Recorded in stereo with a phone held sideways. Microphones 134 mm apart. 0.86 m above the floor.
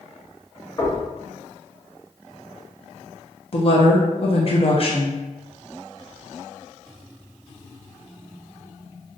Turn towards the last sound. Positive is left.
turn(degrees=45)  # may be behind; listen again after turning